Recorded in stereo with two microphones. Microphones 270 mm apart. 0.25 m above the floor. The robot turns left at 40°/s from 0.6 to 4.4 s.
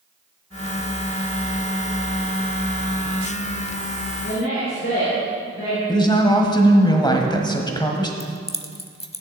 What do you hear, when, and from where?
4.2 s a woman speaking: 55° left (ahead or behind), 4 m; by 5.8 s 50° left (ahead or behind), 4 m
5.9 s a woman speaking: 15° left (ahead or behind), 1.3 m
8.2 s keys jangling: 20° left (ahead or behind), 0.7 m